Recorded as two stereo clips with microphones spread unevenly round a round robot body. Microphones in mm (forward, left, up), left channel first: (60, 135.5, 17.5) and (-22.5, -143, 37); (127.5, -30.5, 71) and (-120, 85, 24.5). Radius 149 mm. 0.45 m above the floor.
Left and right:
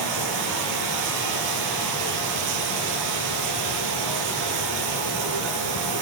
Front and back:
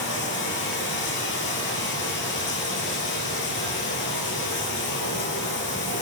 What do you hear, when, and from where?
0.0 s running water: 80° right, 5.5 m